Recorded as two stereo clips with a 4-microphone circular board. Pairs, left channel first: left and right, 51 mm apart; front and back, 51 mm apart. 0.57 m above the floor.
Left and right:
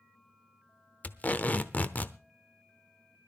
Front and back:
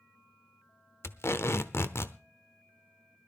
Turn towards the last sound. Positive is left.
turn(degrees=35)